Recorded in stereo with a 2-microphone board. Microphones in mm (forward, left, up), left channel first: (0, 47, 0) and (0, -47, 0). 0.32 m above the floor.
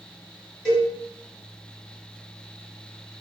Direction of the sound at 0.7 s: 10° left (ahead or behind).